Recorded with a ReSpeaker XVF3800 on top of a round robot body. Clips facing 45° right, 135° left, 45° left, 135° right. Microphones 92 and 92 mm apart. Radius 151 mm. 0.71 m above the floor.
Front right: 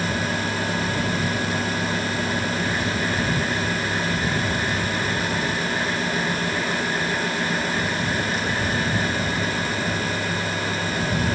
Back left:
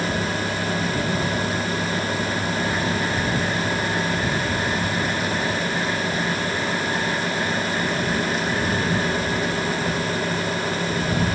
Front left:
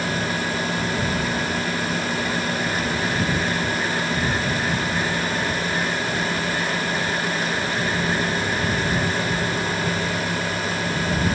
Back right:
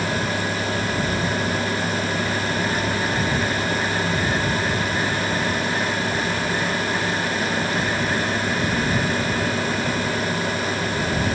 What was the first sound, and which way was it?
Only background noise.